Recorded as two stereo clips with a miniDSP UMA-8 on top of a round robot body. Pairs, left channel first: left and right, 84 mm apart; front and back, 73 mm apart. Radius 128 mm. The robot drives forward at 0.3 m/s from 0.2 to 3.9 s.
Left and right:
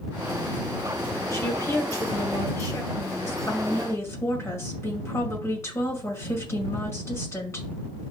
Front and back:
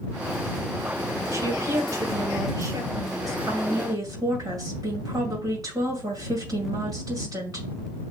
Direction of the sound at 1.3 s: 140° left.